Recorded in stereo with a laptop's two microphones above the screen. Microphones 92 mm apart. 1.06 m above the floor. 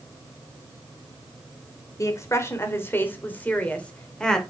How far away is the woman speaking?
About 3.5 m.